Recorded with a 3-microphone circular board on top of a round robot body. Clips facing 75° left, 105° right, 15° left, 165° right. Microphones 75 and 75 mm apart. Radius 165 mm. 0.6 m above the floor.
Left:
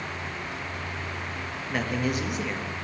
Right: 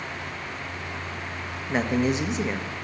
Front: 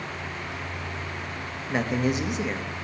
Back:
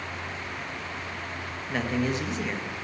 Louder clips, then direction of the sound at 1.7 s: Right 5 dB, front 2 dB; 50° right.